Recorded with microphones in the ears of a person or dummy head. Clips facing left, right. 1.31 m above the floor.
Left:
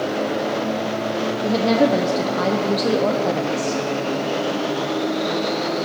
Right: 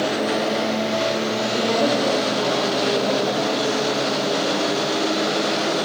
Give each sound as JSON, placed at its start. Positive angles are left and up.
{"t": 1.4, "sound": "a woman speaking", "side_deg": 65, "distance_m": 0.8}